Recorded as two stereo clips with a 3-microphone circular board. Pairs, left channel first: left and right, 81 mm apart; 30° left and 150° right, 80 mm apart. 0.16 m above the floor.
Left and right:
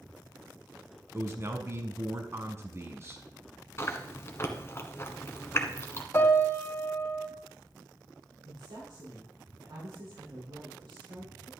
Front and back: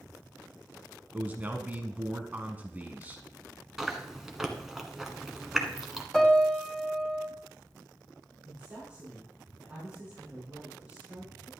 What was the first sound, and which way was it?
A man speaking, 100° right.